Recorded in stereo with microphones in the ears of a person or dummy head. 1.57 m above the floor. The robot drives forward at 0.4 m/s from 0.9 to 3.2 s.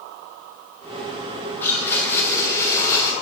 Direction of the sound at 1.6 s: 20° left (ahead or behind).